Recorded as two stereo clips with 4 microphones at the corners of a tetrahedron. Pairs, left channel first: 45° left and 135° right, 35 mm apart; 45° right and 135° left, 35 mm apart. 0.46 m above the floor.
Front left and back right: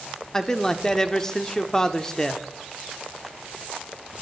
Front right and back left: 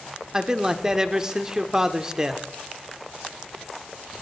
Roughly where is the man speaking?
Left.